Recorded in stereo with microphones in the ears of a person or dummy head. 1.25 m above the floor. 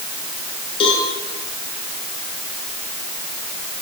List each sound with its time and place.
0.8 s a cowbell: 30° left (ahead or behind), 6 m